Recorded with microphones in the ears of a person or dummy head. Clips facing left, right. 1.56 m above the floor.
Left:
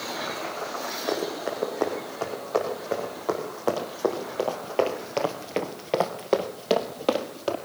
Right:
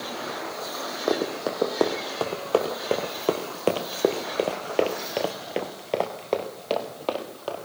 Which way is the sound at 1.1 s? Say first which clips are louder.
Right 3 dB; 65° right (ahead or behind).